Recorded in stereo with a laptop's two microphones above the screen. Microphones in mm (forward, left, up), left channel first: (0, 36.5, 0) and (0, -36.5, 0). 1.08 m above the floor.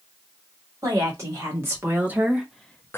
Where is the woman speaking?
45° right (ahead or behind), 1.8 m; by 3.0 s 30° left (ahead or behind), 0.5 m.